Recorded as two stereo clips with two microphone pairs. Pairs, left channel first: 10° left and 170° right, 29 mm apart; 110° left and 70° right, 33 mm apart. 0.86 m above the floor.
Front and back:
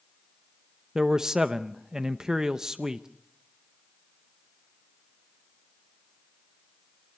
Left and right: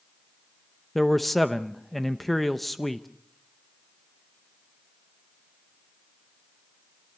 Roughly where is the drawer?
I don't hear a drawer.